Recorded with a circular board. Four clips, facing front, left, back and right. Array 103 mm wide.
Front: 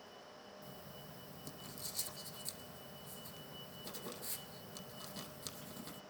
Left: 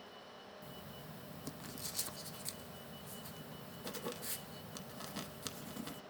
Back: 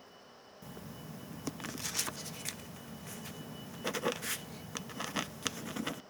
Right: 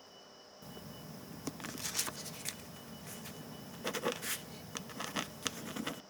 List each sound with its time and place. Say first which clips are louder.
0.6 s writing: right 6 dB, back 5 dB; 150° right, 0.6 m